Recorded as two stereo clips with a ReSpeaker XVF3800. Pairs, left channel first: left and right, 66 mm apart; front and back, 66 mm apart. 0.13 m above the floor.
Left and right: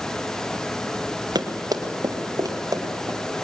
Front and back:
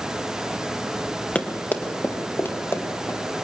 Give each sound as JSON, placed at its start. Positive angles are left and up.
{"t": 1.4, "sound": "running footsteps", "azimuth_deg": -70, "distance_m": 2.0}